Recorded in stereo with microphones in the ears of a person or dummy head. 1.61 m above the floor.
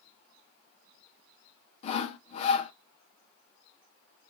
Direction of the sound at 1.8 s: 40° left (ahead or behind).